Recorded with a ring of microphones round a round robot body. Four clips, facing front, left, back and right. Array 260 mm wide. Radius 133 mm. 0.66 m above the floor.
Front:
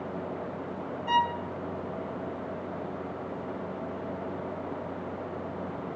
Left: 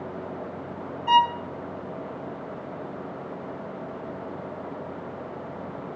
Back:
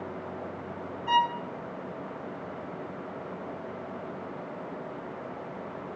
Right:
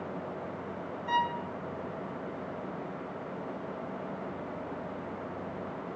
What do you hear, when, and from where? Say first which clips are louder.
1.1 s a violin: left 10 dB, back 1 dB; 90° left, 0.7 m